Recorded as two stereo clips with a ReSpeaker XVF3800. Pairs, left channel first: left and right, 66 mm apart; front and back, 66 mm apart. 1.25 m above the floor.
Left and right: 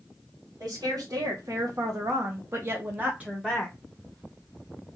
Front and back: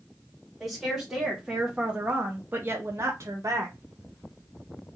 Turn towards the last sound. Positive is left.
turn(degrees=180)